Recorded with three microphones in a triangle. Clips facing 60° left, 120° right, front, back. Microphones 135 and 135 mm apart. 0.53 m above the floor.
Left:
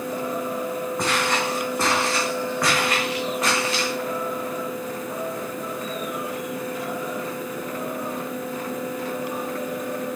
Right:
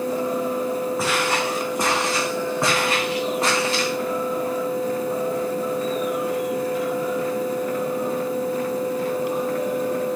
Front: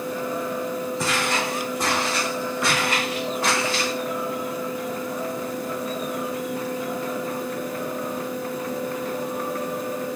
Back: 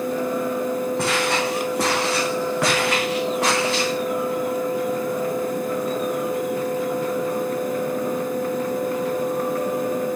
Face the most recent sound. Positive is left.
turn(degrees=-175)